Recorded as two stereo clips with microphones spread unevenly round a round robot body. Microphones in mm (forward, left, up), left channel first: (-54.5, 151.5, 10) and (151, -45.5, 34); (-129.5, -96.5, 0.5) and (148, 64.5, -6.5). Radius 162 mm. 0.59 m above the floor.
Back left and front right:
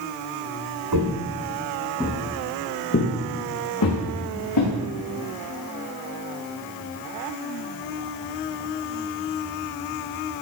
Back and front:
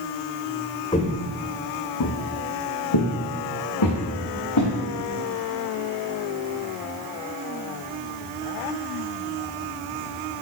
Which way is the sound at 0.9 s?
75° right.